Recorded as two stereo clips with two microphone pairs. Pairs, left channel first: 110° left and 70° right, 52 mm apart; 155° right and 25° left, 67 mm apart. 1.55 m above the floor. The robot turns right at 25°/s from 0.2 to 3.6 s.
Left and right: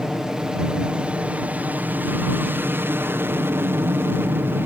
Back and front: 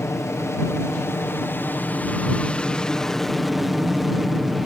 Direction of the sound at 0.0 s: 150° right.